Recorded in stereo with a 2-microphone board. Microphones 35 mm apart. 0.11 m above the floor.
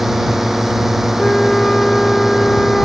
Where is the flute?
15° left (ahead or behind).